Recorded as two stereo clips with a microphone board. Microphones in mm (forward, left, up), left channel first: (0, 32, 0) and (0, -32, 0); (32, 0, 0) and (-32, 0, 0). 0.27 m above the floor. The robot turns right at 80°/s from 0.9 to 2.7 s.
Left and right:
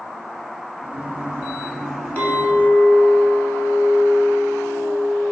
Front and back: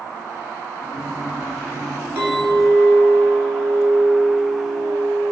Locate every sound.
2.2 s a clink: 140° left, 0.7 m; by 5.3 s 175° right, 0.7 m